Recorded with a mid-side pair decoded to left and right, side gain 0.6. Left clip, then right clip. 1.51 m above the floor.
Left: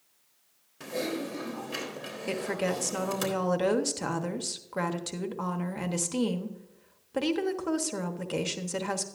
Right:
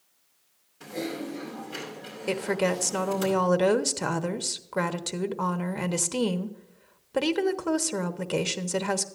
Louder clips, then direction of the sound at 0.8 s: Left 1 dB; 40° left.